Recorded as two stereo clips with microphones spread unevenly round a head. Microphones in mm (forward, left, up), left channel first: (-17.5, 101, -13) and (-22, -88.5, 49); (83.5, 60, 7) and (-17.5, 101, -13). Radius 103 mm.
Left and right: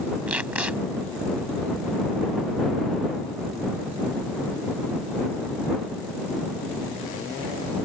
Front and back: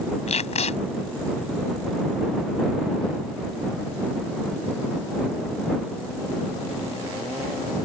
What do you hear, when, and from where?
0.3 s tape being pulled: 10° right